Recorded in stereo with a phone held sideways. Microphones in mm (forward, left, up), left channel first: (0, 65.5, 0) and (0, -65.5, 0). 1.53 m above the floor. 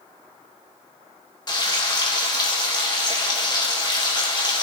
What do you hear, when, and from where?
1.5 s frying: 35° left (ahead or behind), 1.4 m